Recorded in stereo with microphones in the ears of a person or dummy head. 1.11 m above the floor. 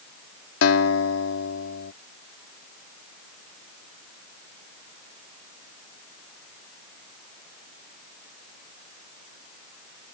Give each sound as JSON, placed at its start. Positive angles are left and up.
{"t": 0.6, "sound": "a guitar", "side_deg": 75}